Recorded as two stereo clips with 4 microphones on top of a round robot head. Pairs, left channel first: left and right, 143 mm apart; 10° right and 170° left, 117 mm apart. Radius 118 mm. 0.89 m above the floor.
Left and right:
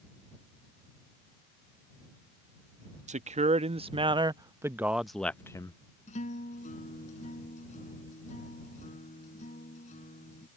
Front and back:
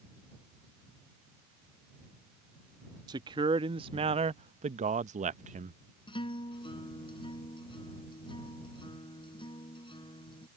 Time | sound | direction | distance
3.1 | a man speaking | 130° right | ?
6.1 | a guitar | 40° left | ?